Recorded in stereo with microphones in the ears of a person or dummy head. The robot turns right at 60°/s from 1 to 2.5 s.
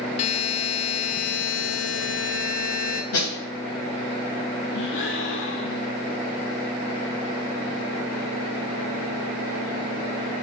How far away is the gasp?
About 1.3 m.